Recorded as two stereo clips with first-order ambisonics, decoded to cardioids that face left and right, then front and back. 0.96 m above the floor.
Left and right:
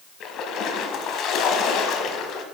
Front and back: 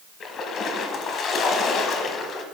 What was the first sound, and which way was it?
A splash, 50° left.